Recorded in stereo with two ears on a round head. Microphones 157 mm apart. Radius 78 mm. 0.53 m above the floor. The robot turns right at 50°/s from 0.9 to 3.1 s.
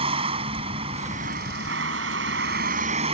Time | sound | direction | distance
0.0 | a vehicle | 145° right | ?